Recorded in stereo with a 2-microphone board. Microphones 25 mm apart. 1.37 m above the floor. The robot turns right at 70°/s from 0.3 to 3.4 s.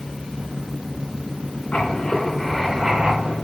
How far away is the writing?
About 3 m.